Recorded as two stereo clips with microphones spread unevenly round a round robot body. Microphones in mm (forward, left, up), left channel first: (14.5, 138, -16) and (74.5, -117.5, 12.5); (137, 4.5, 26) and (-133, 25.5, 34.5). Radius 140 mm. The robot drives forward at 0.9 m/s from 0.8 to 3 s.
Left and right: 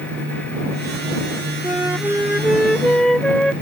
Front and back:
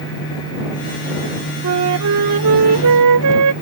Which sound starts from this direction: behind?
A flute, at 1.6 s.